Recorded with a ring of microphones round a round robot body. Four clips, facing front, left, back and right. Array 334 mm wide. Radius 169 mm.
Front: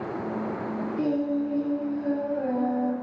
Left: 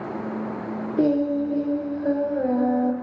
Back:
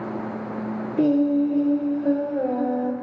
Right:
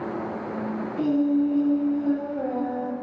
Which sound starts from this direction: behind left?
Singing, at 1.0 s.